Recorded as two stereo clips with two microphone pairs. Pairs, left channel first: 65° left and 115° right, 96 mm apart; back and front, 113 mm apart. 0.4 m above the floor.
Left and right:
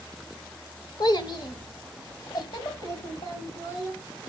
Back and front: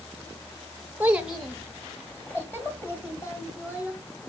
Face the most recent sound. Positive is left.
turn(degrees=120)